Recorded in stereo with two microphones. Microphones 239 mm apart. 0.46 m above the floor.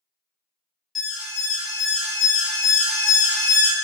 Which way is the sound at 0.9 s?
Centre (ahead or behind).